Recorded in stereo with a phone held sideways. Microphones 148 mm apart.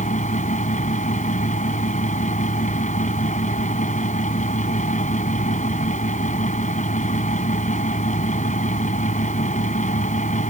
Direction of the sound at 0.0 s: 55° left (ahead or behind).